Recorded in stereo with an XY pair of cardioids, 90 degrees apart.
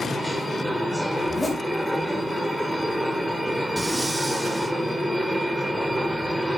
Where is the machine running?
5° left, 1.6 m.